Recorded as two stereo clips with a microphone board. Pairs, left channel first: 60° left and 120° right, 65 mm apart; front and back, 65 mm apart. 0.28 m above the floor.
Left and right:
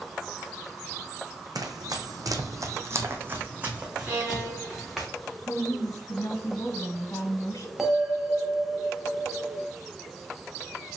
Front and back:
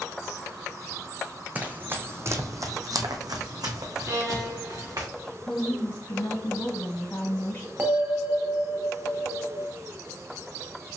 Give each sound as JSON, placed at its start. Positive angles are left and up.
{"t": 1.6, "sound": "running footsteps", "azimuth_deg": -115, "distance_m": 0.9}
{"t": 4.1, "sound": "a violin", "azimuth_deg": 180, "distance_m": 2.5}
{"t": 5.5, "sound": "a woman speaking", "azimuth_deg": 50, "distance_m": 1.8}
{"t": 7.8, "sound": "a bell", "azimuth_deg": 160, "distance_m": 0.9}